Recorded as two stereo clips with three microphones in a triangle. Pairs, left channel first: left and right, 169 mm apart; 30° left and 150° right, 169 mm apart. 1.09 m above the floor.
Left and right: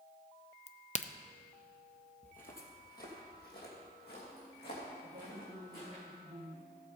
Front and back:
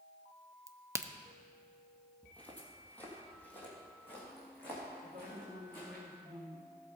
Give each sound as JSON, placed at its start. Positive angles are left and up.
{"t": 0.7, "sound": "a crack", "azimuth_deg": 140, "distance_m": 0.5}
{"t": 2.2, "sound": "footsteps", "azimuth_deg": 110, "distance_m": 1.9}
{"t": 5.0, "sound": "a woman speaking", "azimuth_deg": -110, "distance_m": 1.6}